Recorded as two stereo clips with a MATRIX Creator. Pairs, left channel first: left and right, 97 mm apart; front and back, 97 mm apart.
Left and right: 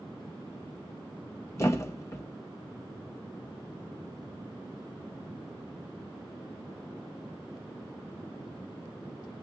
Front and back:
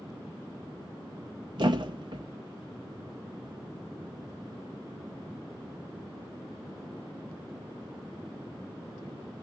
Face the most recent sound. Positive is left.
turn(degrees=145)